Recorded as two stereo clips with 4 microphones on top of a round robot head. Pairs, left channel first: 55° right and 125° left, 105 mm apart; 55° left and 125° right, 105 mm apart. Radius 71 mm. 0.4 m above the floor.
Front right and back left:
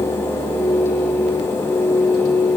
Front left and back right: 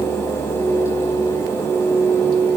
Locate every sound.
Only background noise.